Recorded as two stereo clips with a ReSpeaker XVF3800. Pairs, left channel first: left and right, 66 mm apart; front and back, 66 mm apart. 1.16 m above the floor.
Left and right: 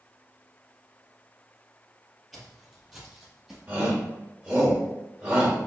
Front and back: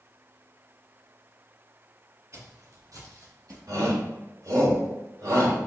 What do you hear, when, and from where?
2.3 s footsteps: 175° right, 1.5 m; by 3.6 s 165° right, 2.5 m
3.7 s a shout: 150° right, 2.5 m